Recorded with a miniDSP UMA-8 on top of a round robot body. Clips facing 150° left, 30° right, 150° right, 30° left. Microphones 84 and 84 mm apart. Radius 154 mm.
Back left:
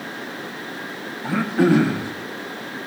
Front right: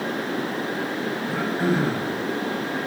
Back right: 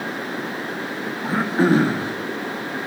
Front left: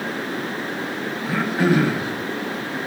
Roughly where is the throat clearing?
Behind left.